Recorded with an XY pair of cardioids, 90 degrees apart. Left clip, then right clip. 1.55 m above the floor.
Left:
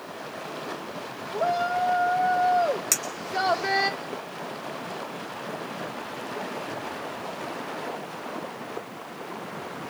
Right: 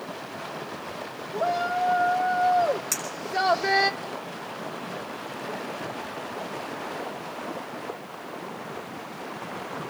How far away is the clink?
About 4.5 m.